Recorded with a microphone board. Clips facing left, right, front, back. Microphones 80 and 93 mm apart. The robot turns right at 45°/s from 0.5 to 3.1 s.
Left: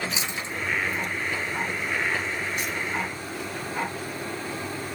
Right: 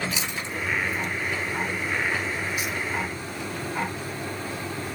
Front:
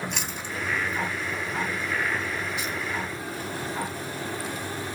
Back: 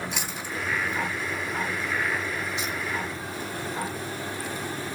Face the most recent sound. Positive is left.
turn(degrees=-135)